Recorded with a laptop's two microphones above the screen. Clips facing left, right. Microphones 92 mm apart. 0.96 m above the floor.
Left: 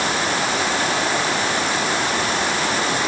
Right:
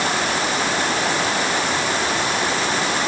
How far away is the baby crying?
No baby crying in this recording.